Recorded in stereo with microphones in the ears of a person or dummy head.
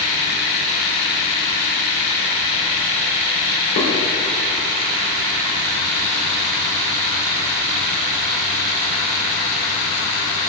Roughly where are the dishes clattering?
Left.